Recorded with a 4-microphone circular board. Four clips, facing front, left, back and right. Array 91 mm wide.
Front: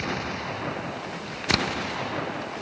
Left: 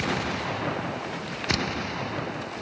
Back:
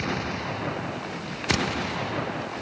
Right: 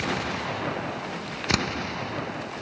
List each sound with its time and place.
1.5 s hammering: 55° right